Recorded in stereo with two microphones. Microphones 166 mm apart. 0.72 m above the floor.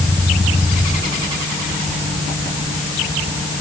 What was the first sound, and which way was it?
Only background noise.